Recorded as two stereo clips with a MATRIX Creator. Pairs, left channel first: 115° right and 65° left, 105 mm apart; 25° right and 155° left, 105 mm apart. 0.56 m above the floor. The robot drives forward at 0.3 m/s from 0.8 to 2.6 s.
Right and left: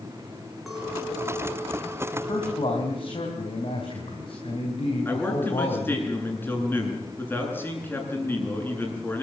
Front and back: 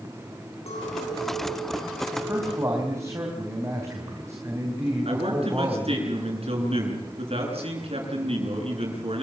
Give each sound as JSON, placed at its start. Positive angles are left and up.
{"t": 0.7, "sound": "a clink", "azimuth_deg": -20, "distance_m": 6.0}
{"t": 2.1, "sound": "a man speaking", "azimuth_deg": -140, "distance_m": 4.0}
{"t": 5.0, "sound": "a man speaking", "azimuth_deg": 175, "distance_m": 8.0}